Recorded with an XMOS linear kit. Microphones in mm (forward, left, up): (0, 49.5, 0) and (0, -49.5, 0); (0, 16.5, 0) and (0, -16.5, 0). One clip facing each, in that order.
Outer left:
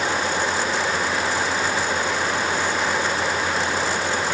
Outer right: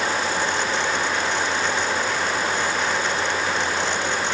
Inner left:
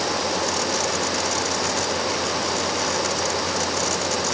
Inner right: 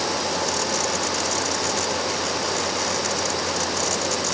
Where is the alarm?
No alarm in this recording.